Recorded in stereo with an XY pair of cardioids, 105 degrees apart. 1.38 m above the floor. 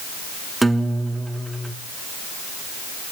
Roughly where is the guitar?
Ahead.